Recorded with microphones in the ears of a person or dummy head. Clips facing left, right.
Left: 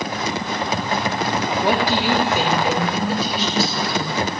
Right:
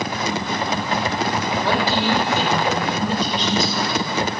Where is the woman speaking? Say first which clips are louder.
Left 1 dB; 15° left (ahead or behind), 1.6 m; by 4.2 s 5° left (ahead or behind), 3.5 m.